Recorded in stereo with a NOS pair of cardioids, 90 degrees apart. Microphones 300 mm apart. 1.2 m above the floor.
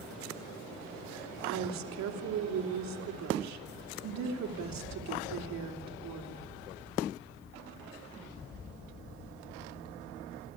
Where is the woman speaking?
65° right, 3 m.